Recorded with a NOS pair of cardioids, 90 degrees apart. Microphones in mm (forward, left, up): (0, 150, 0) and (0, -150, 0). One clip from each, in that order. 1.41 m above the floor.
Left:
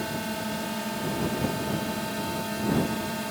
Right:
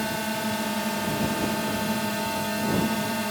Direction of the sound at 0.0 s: 35° right.